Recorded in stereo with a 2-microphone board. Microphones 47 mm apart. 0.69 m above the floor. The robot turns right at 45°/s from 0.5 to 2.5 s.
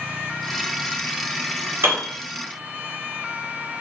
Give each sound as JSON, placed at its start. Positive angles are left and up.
{"t": 1.8, "sound": "a piano", "side_deg": -55, "distance_m": 1.4}